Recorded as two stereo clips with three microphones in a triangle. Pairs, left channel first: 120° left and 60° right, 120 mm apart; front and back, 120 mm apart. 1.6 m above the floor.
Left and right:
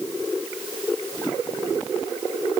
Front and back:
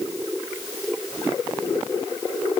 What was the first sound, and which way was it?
Only background noise.